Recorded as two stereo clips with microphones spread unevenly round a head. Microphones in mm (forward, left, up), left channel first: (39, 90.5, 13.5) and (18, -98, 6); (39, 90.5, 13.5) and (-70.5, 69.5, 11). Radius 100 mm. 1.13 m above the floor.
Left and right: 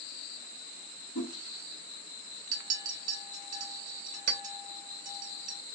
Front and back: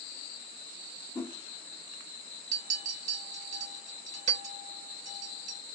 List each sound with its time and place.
1.1 s a whoosh: 80° left, 1.3 m
2.5 s a clink: 150° right, 1.1 m